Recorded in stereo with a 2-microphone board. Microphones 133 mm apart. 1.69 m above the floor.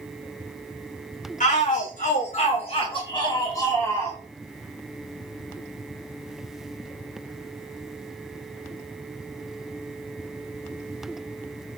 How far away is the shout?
About 1.3 m.